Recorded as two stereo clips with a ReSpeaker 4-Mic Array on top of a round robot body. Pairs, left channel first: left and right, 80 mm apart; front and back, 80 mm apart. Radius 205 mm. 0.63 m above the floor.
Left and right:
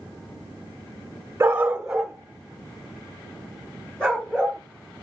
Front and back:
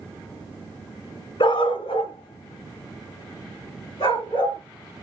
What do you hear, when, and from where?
1.4 s a dog barking: 25° right, 1.4 m; by 4.6 s 10° left, 5.5 m